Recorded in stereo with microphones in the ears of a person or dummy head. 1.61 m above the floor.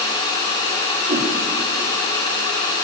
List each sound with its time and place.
1.1 s a whoosh: 40° right (ahead or behind), 5 m